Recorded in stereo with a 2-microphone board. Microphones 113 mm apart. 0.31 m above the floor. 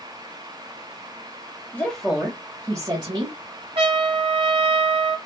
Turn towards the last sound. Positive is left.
turn(degrees=-55)  # may be behind; listen again after turning